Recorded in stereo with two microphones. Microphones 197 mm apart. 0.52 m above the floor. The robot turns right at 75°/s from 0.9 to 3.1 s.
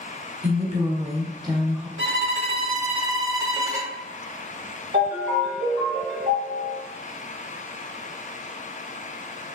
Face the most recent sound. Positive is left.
turn(degrees=-55)  # may be behind; listen again after turning